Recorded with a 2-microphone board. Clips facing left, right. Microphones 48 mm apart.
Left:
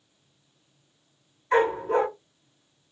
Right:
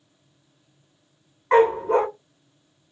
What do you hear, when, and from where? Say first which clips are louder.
1.5 s a dog barking: right 5 dB; 75° right (ahead or behind), 3 m